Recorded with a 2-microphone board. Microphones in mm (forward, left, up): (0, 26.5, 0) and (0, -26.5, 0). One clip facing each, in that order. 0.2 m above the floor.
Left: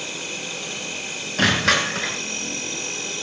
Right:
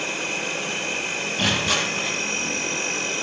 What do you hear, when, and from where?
0.0 s an insect: 45° right (ahead or behind), 3 m
1.4 s crushing: 65° left (ahead or behind), 4.5 m